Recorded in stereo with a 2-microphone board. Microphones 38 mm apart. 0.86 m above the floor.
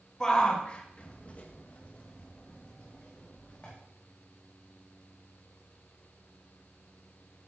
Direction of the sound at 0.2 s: 20° left (ahead or behind).